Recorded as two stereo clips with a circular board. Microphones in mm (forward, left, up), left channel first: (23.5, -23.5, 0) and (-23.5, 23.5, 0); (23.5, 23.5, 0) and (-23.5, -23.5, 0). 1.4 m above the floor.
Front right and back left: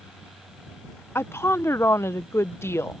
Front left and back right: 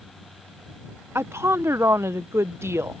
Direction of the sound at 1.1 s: 90° right.